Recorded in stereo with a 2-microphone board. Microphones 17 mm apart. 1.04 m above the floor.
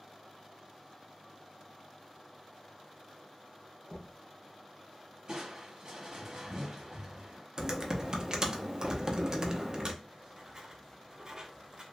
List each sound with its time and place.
3.9 s knocking: 60° left (ahead or behind), 0.6 m
5.3 s crushing: 30° right (ahead or behind), 1.1 m
7.6 s typing on a keyboard: 35° right (ahead or behind), 0.5 m
10.0 s writing: 40° right (ahead or behind), 0.6 m